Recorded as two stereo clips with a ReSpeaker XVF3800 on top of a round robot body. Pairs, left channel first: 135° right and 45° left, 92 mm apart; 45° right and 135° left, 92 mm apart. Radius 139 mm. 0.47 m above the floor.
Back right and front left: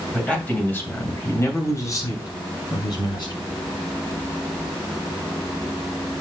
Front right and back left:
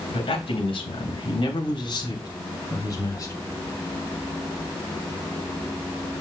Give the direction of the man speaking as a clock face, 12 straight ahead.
2 o'clock.